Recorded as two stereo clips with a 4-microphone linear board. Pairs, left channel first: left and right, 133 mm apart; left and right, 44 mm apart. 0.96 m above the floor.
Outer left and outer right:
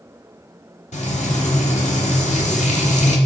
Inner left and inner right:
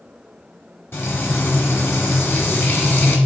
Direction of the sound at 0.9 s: 65° left (ahead or behind).